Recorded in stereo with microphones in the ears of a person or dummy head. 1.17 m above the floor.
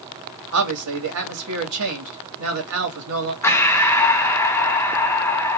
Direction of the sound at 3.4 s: 15° left (ahead or behind).